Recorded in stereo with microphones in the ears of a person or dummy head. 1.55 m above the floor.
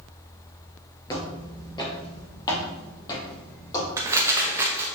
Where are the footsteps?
20° left (ahead or behind), 1.8 m.